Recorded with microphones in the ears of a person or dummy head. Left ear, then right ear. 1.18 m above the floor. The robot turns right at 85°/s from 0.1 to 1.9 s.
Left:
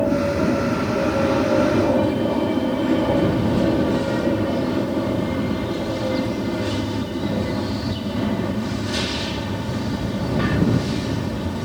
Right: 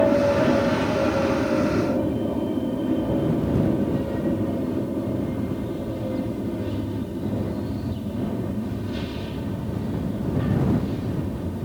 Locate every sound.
0.0 s an aircraft: 90° right; by 11.7 s 60° left